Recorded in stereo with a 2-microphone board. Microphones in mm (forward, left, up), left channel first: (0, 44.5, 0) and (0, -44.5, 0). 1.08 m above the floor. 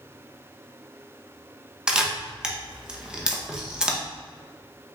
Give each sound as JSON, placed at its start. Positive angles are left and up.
{"t": 1.9, "sound": "a camera shutter", "side_deg": -10, "distance_m": 0.7}